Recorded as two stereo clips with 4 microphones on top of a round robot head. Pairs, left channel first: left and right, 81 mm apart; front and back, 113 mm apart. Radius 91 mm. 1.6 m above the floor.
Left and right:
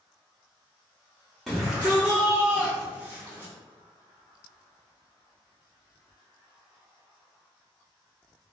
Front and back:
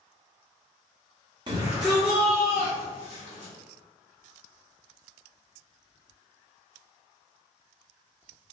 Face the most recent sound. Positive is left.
turn(degrees=-25)